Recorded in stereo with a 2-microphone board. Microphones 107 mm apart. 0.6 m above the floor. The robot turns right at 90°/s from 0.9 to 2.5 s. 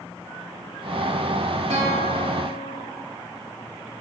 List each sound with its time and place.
1.7 s a guitar: 80° right, 1.4 m; by 2.9 s 10° right, 1.4 m